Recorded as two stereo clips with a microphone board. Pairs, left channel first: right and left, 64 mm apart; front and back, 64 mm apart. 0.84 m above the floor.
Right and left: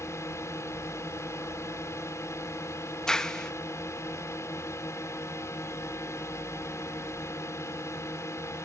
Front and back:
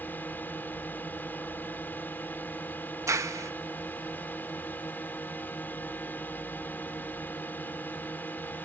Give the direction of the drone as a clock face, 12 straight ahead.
2 o'clock.